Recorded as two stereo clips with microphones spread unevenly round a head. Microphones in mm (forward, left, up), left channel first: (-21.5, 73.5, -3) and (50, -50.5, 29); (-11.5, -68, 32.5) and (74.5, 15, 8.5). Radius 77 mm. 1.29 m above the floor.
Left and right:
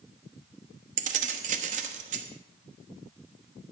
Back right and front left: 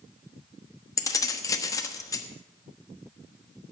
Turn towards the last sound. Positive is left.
turn(degrees=-85)